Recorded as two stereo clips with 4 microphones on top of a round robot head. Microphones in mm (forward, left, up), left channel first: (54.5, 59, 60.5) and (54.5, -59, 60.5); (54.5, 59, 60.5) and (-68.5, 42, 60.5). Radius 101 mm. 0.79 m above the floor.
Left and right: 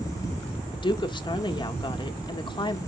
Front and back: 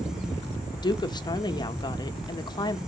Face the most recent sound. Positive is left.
turn(degrees=55)